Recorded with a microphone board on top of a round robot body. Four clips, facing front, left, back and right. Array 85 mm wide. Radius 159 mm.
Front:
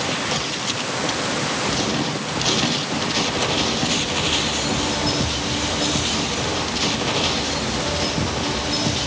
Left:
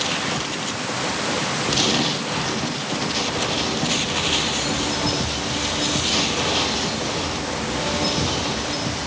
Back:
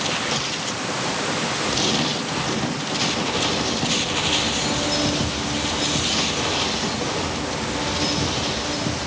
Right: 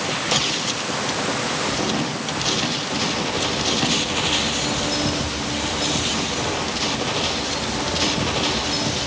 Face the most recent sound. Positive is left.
No sound to turn to.